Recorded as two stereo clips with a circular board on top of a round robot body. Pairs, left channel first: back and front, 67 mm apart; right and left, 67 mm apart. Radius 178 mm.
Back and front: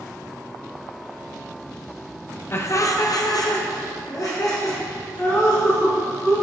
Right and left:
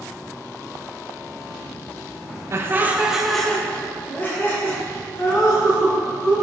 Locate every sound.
2.5 s laughter: 130° left, 0.7 m; by 6.3 s 135° right, 2 m